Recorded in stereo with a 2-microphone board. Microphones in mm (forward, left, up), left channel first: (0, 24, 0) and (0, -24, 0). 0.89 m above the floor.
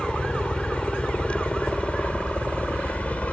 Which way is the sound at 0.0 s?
20° left (ahead or behind).